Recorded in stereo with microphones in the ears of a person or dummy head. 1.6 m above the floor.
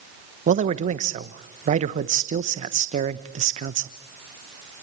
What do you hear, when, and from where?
0.5 s a man speaking: 40° right (ahead or behind), 1.1 m